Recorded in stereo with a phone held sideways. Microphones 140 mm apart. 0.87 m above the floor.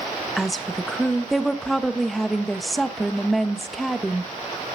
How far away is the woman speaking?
About 1.1 m.